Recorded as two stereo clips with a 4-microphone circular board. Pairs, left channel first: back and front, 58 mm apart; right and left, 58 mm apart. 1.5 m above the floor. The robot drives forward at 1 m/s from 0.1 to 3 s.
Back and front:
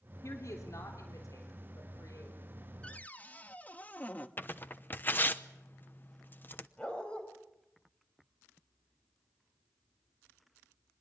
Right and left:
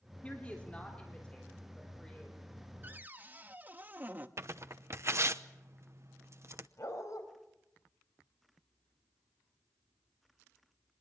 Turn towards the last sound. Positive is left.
turn(degrees=-110)